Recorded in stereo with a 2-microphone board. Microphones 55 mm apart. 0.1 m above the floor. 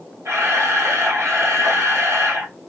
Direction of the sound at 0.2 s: 55° right (ahead or behind).